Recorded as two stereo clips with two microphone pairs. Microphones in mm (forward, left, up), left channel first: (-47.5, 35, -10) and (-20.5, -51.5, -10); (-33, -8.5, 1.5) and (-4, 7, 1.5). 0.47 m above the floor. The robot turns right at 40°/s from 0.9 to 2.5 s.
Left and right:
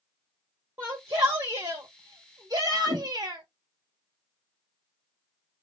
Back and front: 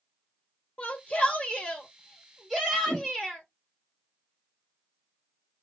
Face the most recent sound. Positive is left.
turn(degrees=-90)